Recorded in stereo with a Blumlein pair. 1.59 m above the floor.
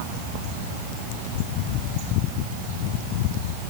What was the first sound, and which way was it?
Only background noise.